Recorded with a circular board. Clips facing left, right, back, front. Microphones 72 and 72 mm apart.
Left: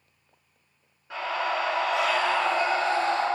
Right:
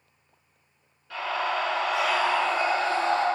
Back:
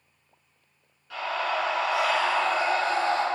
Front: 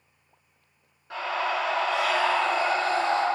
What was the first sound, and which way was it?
A scream, 45° left.